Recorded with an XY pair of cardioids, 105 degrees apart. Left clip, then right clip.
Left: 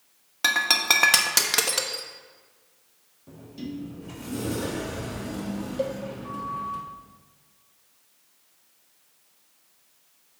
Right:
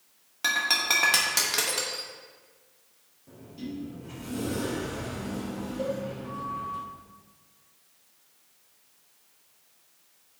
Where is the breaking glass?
40° left, 0.8 m.